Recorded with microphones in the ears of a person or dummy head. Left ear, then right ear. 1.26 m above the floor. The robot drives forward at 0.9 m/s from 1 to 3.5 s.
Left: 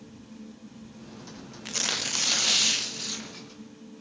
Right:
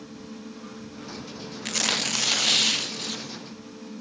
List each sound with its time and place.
1.6 s tearing paper: 20° right (ahead or behind), 0.6 m; by 3.4 s 5° right (ahead or behind), 2 m